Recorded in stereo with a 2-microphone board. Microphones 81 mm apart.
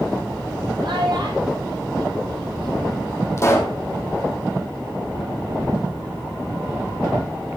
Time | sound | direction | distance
0.8 | a child speaking | 75° right (ahead or behind) | 8 m
3.4 | a pop | 35° left (ahead or behind) | 4.5 m